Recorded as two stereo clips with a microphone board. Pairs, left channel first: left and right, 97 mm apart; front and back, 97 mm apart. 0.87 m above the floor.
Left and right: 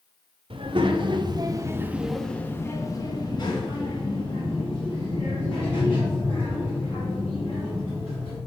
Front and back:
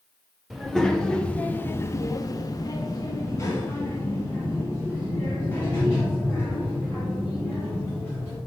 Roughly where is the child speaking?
Right.